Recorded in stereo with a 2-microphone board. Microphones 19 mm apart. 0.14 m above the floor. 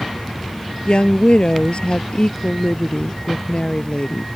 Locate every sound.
0.9 s a woman speaking: 55° left (ahead or behind)